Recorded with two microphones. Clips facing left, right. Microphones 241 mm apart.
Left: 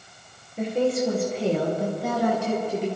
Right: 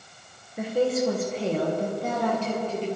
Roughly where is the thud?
I don't hear a thud.